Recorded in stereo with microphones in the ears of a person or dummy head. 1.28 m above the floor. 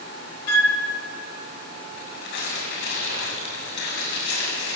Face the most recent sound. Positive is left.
turn(degrees=70)  # may be behind; listen again after turning